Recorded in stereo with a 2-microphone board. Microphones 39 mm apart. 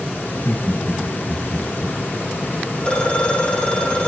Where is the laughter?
55° left (ahead or behind), 3.5 m; by 2.0 s 65° left (ahead or behind), 2.5 m.